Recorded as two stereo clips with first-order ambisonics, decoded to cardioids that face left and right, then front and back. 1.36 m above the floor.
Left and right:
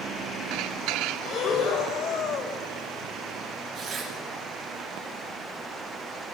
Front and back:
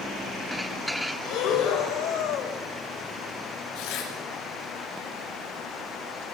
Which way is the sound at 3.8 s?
15° right.